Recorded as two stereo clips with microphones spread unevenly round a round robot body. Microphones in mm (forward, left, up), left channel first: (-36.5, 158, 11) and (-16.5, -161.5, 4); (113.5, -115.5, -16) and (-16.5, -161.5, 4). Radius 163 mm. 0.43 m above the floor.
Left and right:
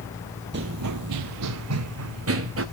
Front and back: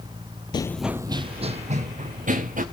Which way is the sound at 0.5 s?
40° right.